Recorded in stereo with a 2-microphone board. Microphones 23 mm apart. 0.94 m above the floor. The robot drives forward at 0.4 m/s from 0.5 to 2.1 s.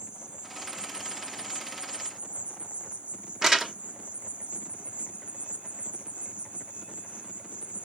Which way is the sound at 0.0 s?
50° right (ahead or behind).